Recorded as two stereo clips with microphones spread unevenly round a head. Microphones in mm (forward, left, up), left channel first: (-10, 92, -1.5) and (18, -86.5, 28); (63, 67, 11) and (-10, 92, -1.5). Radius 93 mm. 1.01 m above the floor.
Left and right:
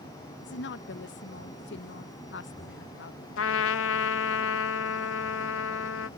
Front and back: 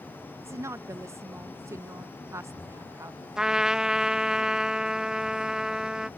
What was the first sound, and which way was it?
A woman speaking, 115° left.